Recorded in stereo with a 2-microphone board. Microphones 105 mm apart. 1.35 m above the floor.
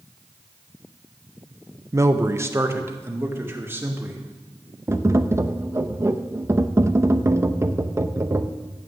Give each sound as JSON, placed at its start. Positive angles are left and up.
{"t": 1.9, "sound": "a man speaking", "side_deg": -30, "distance_m": 0.9}
{"t": 4.9, "sound": "tapping", "side_deg": -25, "distance_m": 0.7}